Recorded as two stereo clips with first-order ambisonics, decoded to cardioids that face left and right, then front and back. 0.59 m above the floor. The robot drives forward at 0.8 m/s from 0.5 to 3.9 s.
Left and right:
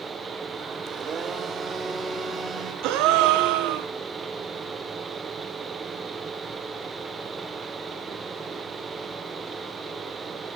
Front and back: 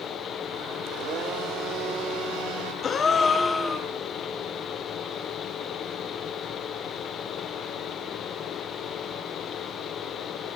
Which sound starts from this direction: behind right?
A blender, at 0.9 s.